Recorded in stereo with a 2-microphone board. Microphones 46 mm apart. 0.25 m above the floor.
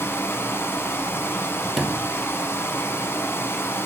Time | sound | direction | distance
0.0 | running water | 65° left (ahead or behind) | 0.7 m
1.8 | a sliding door | 10° right (ahead or behind) | 0.6 m